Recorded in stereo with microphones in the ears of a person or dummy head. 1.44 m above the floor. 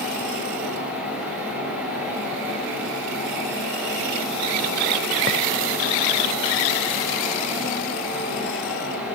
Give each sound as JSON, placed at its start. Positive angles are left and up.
{"t": 0.0, "sound": "a fan", "side_deg": -5, "distance_m": 6.5}